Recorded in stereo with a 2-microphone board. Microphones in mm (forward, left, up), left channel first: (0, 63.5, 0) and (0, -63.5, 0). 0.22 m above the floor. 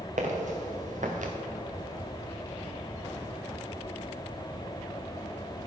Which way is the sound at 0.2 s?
70° right (ahead or behind).